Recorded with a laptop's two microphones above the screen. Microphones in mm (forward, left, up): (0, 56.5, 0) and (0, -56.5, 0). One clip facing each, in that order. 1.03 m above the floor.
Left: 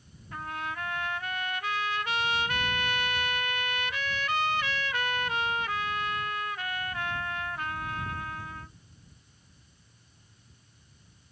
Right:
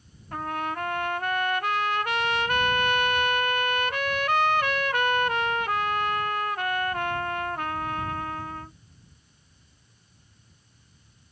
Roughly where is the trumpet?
Right.